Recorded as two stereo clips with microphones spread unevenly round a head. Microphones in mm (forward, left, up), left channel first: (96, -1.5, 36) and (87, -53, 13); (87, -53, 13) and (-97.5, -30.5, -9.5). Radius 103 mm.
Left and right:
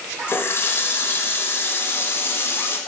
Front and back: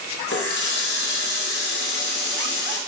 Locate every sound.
0.3 s a running tap: 40° left, 1.2 m